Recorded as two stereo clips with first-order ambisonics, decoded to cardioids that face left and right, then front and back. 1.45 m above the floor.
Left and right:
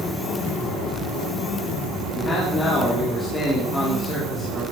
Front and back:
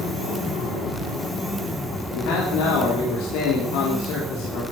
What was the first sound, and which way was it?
A man speaking, 15° left.